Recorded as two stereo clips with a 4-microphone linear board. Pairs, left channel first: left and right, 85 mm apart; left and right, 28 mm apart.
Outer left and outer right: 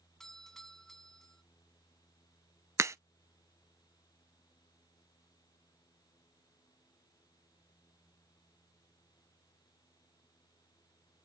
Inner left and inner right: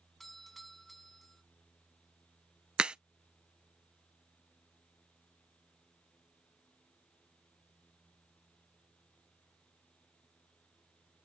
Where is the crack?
35° right (ahead or behind).